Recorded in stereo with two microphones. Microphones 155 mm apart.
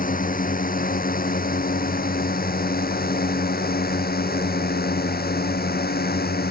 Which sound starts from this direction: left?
A drone, at 0.0 s.